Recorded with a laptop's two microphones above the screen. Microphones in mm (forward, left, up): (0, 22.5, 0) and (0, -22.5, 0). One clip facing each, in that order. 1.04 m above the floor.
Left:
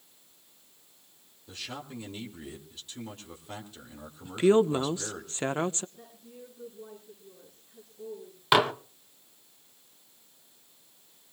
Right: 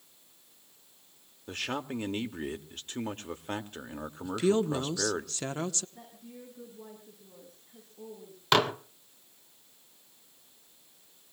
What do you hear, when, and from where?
1.5 s a man speaking: 60° right (ahead or behind), 2 m
4.2 s a woman speaking: 30° left (ahead or behind), 0.7 m
6.0 s a woman speaking: 70° right (ahead or behind), 8 m
8.5 s dishes clattering: 10° left (ahead or behind), 0.7 m